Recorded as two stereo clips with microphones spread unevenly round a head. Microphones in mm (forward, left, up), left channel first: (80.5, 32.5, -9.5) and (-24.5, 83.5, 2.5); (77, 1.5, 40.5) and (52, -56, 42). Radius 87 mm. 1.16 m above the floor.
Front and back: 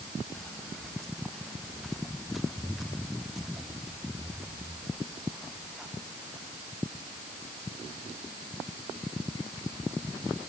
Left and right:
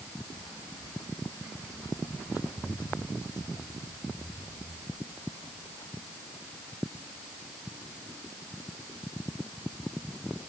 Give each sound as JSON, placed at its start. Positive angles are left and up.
{"t": 0.3, "sound": "footsteps", "azimuth_deg": 60}